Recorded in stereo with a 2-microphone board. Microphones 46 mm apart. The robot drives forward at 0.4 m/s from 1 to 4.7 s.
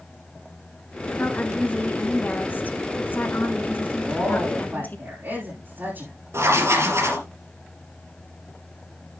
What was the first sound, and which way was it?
A woman speaking, 35° left (ahead or behind).